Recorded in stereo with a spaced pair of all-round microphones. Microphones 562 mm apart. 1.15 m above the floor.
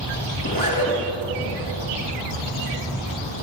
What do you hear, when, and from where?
0.4 s a zipper: 35° left (ahead or behind), 2 m